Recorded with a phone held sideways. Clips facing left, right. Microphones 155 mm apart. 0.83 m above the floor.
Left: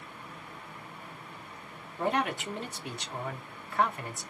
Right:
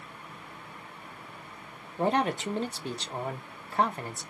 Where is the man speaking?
30° right (ahead or behind), 0.8 m.